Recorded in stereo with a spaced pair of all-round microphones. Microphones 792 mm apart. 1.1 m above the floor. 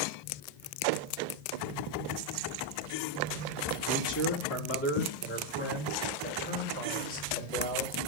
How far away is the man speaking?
About 2.5 m.